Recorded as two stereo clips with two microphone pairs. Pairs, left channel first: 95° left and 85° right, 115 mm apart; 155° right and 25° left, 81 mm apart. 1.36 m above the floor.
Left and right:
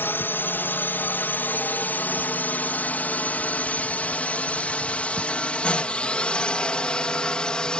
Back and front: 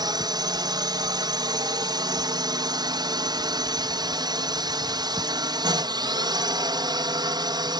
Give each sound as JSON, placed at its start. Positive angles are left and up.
{"t": 0.0, "sound": "a drone", "azimuth_deg": 25}